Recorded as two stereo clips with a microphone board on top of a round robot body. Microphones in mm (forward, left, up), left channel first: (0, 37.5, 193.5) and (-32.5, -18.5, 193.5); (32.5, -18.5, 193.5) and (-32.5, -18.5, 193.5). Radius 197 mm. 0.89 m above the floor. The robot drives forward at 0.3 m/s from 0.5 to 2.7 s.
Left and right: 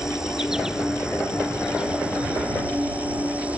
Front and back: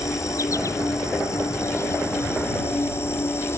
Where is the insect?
40° right; by 3.6 s 50° right.